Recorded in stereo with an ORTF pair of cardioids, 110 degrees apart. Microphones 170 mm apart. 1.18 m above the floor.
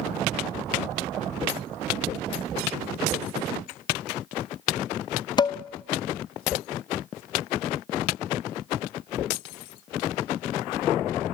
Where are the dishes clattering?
25° left, 0.6 m.